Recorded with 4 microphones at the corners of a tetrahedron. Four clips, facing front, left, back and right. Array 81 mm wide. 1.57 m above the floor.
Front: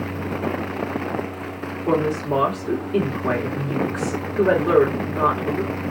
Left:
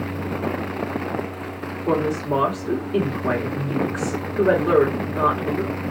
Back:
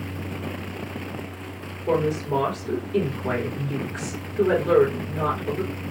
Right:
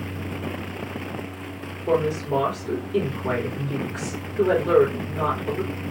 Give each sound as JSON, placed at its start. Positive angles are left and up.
{"t": 1.9, "sound": "a woman speaking", "azimuth_deg": 35, "distance_m": 2.5}